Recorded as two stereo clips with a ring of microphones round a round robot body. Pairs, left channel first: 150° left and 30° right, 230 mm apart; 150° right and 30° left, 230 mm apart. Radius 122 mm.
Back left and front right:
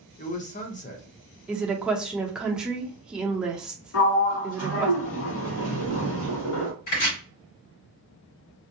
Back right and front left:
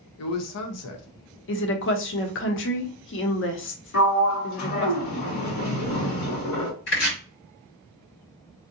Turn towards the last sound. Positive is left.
turn(degrees=165)